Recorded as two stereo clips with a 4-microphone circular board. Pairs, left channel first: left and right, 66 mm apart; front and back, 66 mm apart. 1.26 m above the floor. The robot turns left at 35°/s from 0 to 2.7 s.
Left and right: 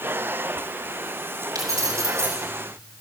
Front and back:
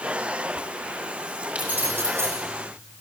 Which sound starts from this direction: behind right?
Keys jangling, at 1.6 s.